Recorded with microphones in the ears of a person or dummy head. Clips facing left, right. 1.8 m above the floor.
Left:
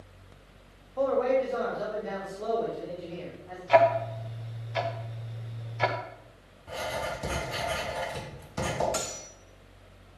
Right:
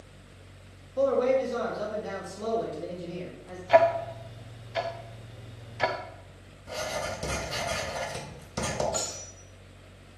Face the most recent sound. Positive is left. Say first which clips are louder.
# even
turn(degrees=35)  # may be behind; listen again after turning